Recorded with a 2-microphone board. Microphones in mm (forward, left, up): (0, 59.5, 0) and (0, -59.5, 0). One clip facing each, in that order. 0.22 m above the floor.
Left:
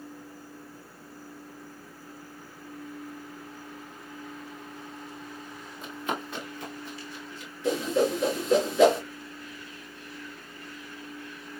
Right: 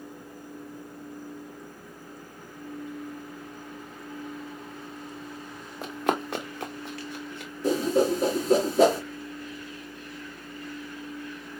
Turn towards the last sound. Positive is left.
turn(degrees=-40)  # may be behind; listen again after turning